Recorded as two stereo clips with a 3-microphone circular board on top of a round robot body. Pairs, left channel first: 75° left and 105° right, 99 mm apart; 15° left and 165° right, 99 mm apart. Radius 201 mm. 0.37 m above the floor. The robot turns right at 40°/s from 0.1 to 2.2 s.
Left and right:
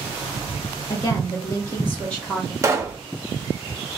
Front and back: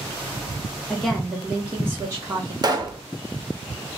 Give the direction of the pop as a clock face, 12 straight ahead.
5 o'clock.